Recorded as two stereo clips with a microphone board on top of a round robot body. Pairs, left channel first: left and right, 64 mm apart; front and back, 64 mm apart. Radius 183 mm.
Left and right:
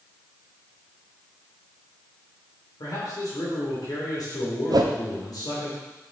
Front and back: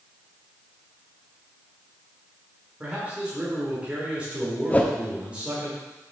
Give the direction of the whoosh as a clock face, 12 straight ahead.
2 o'clock.